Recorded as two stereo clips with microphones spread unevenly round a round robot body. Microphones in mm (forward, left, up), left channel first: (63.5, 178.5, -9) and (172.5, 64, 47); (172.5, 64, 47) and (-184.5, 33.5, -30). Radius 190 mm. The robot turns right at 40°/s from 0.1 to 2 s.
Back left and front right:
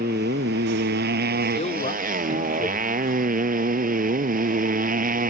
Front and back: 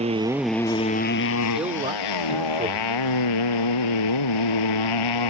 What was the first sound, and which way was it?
A motorcycle, 100° right.